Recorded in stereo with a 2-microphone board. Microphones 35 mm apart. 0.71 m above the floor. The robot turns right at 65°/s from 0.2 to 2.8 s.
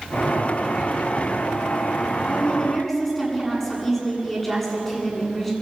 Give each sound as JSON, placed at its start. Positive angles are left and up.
{"t": 2.3, "sound": "a woman speaking", "azimuth_deg": 135, "distance_m": 8.0}